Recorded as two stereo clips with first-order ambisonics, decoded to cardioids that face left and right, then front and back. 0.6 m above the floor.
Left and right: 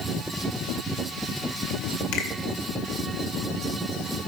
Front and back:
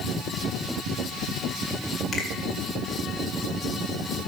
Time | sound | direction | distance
2.1 | a finger snap | 70° left | 1.9 m